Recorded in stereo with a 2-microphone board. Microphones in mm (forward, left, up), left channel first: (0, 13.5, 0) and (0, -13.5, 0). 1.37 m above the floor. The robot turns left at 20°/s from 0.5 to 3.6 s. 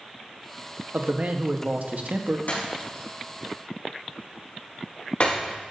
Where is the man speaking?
55° right (ahead or behind), 1.2 m; by 2.4 s 70° right (ahead or behind), 1.2 m.